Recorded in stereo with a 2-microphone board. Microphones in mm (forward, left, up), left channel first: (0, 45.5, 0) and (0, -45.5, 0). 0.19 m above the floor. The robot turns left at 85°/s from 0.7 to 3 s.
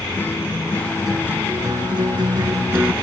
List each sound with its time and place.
0.2 s a guitar: 30° left; by 2.9 s 160° right